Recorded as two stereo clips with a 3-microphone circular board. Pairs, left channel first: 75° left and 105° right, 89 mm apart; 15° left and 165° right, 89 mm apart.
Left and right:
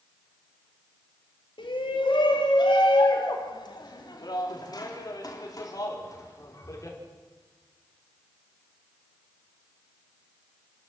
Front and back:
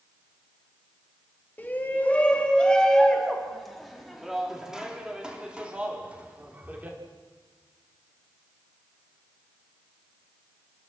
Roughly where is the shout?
Left.